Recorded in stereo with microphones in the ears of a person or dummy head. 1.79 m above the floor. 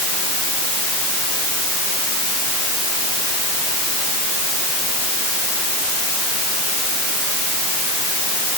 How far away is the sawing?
I don't hear sawing.